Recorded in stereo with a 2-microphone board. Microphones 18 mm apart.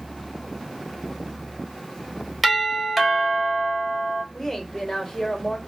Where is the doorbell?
10° right (ahead or behind), 1.5 m.